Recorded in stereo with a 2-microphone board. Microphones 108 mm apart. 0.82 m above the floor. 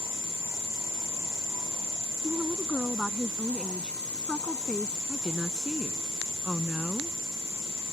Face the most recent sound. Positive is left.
turn(degrees=5)  # may be behind; listen again after turning